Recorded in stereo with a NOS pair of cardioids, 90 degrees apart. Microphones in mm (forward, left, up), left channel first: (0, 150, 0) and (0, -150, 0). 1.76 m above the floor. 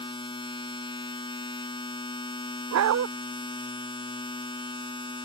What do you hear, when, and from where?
0.0 s a machine running: 15° left
2.7 s a dog barking: 65° right